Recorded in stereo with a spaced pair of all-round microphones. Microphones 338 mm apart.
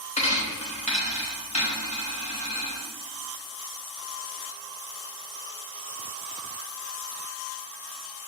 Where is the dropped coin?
20° left (ahead or behind), 0.7 m.